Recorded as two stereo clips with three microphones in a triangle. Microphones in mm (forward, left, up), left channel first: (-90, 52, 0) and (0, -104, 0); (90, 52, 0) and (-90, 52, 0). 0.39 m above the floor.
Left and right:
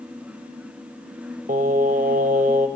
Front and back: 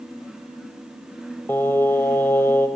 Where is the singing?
75° right, 1.7 m.